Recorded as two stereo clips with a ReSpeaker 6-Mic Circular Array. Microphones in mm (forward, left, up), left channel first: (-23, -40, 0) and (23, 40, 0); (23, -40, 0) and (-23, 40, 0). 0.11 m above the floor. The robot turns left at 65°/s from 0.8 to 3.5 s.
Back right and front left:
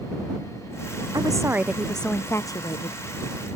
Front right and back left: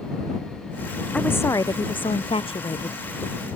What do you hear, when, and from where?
1.1 s a woman speaking: 20° left; by 3.0 s 100° right